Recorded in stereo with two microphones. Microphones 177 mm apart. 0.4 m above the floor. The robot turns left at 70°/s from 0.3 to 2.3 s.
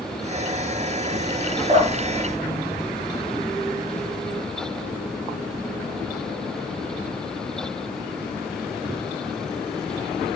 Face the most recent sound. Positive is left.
turn(degrees=-50)  # may be behind; listen again after turning